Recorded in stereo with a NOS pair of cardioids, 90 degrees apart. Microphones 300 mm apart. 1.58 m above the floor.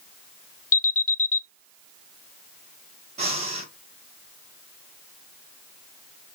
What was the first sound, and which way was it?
An alarm, 50° left.